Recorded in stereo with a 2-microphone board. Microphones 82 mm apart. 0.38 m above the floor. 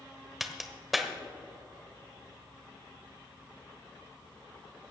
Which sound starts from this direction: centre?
A crack, at 0.4 s.